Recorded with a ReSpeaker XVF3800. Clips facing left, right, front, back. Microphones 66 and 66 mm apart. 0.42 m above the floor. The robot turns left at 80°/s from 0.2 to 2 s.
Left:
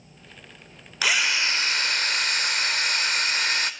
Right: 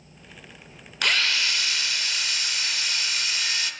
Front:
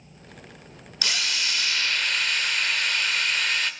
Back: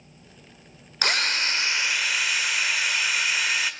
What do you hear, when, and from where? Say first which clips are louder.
1.0 s a drill: left 1 dB, back 4 dB; 175° left, 1.6 m; by 3.7 s 100° left, 1.6 m